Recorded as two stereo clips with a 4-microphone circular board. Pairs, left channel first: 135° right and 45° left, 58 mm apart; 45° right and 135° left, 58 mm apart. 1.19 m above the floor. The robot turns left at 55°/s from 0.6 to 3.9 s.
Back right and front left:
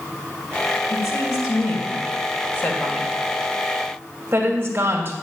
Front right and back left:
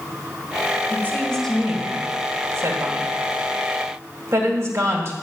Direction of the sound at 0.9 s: 100° right.